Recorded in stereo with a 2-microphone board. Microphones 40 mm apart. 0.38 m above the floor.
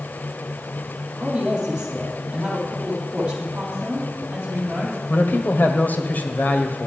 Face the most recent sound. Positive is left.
turn(degrees=50)  # may be behind; listen again after turning